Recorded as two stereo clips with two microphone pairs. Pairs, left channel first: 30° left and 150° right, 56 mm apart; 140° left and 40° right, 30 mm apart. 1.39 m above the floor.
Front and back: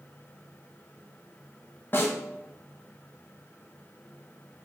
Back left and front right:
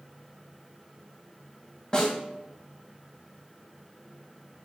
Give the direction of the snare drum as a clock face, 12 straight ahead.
9 o'clock.